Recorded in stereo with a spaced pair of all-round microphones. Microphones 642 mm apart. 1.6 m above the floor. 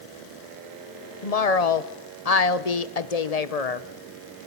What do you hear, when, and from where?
1.2 s a woman speaking: 70° left (ahead or behind), 1.1 m